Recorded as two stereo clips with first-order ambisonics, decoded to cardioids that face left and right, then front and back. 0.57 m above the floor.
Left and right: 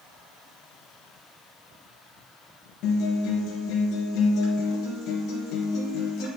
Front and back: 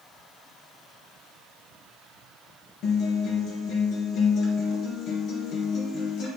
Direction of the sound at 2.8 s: 50° left.